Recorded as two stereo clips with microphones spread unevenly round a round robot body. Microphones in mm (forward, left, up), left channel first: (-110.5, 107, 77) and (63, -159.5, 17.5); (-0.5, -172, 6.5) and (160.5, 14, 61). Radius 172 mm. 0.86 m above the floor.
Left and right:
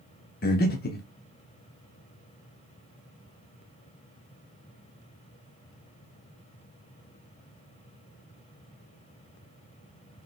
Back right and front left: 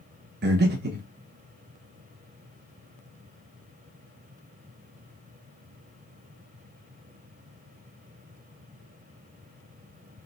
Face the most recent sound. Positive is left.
turn(degrees=70)